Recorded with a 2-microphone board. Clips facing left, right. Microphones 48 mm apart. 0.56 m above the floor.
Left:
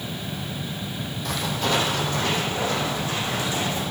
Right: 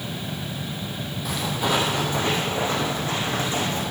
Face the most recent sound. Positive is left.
turn(degrees=-40)  # may be behind; listen again after turning